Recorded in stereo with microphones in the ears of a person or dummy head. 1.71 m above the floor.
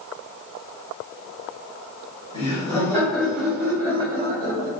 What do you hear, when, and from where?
2.3 s laughter: 30° left (ahead or behind), 2.0 m; by 4.7 s 45° right (ahead or behind), 1.8 m